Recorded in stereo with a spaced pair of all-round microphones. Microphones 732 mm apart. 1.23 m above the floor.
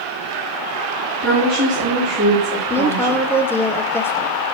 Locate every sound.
1.2 s a woman speaking: 20° right (ahead or behind), 3.5 m
2.7 s a woman speaking: 5° left (ahead or behind), 0.8 m